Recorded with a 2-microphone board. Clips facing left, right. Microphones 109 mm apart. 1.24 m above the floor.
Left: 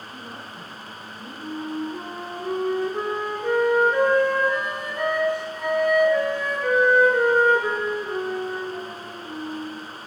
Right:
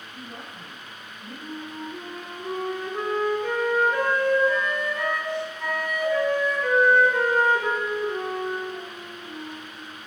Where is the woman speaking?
60° left (ahead or behind), 8.5 m.